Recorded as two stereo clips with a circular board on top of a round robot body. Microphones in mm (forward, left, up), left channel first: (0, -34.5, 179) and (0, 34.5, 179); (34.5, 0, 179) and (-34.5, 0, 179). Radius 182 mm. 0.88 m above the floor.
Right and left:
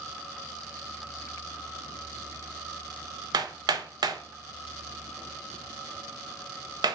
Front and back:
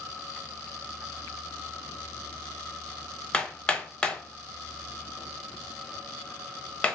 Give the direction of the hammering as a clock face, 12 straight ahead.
9 o'clock.